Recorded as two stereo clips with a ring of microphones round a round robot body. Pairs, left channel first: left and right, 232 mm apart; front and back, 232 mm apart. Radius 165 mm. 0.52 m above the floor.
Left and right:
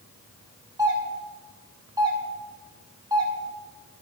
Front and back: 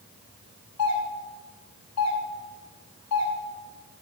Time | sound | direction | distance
0.8 | a doorbell | 15° right | 6 m